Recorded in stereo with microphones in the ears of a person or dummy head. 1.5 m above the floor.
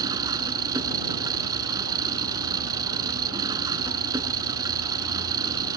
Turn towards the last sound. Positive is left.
turn(degrees=-15)  # may be behind; listen again after turning